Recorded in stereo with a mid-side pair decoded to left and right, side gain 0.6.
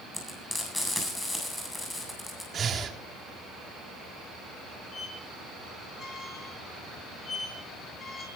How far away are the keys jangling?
No keys jangling in this recording.